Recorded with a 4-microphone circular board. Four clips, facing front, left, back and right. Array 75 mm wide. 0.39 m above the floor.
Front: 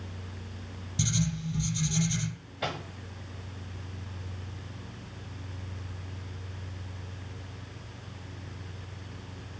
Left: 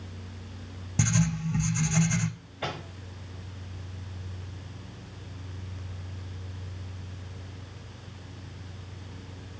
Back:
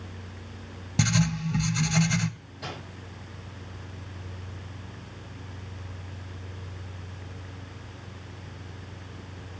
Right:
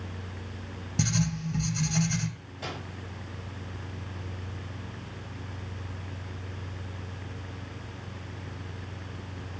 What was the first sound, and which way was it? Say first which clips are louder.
Writing: left 2 dB, back 5 dB; 165° left.